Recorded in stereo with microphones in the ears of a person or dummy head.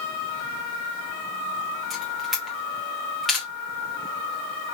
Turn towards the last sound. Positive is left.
turn(degrees=5)  # may be behind; listen again after turning